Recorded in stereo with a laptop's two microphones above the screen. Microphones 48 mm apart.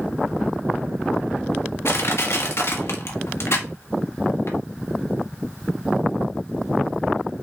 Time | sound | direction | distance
1.9 | crushing | 60° left (ahead or behind) | 1.7 m